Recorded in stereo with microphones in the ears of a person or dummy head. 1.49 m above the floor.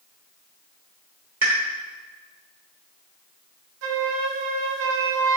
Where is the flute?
70° right (ahead or behind), 0.5 m.